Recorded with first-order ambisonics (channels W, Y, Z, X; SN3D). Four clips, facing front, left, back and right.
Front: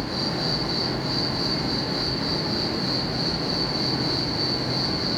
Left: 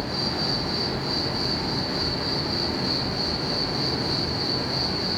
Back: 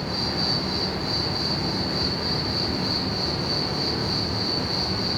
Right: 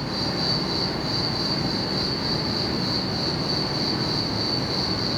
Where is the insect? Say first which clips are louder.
Right 1 dB, even; 125° right, 1.8 m.